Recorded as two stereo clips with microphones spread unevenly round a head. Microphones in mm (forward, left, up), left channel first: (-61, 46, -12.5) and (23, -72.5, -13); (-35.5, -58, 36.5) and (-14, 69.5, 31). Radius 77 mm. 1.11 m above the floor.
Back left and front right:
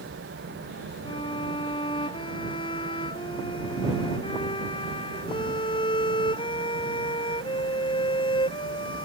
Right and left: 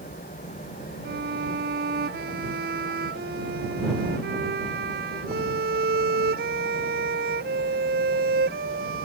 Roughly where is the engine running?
Ahead right.